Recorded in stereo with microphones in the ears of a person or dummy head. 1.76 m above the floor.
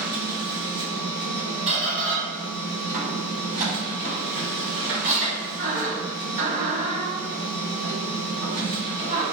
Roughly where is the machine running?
Right.